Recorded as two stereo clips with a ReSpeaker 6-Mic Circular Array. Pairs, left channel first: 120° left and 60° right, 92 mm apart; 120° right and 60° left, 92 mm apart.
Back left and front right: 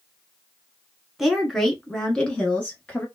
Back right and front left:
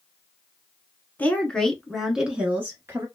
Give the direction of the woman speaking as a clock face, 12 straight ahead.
5 o'clock.